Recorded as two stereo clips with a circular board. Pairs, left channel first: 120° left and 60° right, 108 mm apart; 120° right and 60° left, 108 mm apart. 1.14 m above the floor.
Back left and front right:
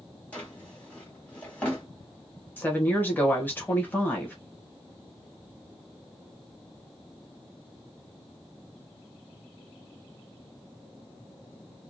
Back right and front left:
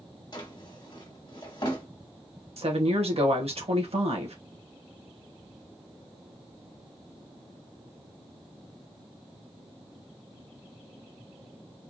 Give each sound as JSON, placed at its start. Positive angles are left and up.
{"t": 0.3, "sound": "a drawer", "azimuth_deg": -165, "distance_m": 1.1}
{"t": 2.6, "sound": "a woman speaking", "azimuth_deg": 50, "distance_m": 1.1}